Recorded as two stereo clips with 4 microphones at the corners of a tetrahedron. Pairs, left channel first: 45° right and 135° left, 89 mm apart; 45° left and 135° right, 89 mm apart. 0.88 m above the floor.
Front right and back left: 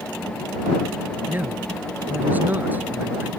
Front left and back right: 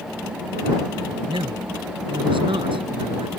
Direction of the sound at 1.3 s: 155° right.